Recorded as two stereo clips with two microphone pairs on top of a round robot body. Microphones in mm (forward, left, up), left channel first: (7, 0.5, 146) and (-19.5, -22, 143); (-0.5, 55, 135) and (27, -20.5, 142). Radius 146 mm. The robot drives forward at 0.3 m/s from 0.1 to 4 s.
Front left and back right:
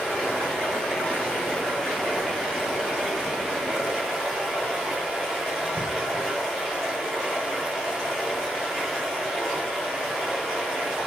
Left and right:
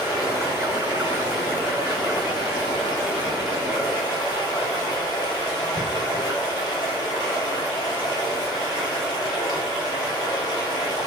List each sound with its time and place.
0.0 s running water: 75° left, 1.0 m; by 11.1 s 140° left, 1.4 m